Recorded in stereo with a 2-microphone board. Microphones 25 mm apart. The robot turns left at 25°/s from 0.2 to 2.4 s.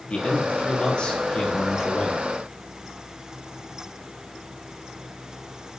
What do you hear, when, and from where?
0.1 s a man speaking: 70° left, 2.5 m; by 2.2 s 20° left, 2.5 m